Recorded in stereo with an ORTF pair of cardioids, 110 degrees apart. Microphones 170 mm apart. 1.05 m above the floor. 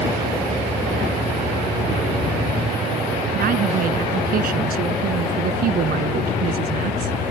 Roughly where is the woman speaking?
Ahead right.